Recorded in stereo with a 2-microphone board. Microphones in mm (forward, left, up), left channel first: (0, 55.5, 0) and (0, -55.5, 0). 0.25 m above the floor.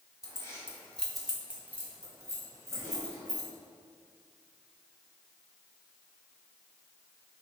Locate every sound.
0.2 s keys jangling: 30° left (ahead or behind), 1.2 m; by 3.5 s 30° right (ahead or behind), 3 m